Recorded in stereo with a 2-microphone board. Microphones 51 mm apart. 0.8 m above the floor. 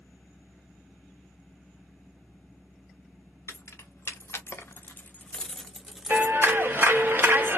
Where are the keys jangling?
65° left (ahead or behind), 1.0 m; by 6.6 s 20° right (ahead or behind), 0.9 m.